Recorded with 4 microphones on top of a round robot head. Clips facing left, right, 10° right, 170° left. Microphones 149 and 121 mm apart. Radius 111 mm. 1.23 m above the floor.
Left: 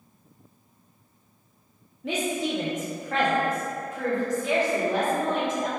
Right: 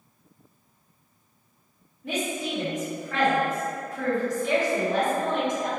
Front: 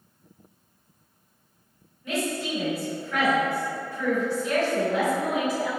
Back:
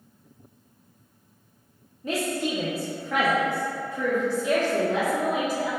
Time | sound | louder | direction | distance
2.0 | a woman speaking | left 2 dB, back 2 dB | 110° left | 1.0 m